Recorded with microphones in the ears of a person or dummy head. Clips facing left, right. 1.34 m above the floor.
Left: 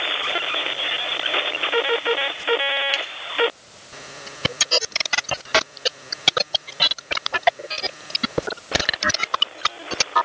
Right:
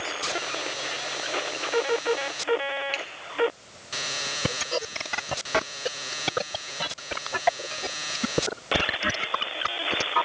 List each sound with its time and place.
2.9 s a finger snap: 10° left (ahead or behind), 1.4 m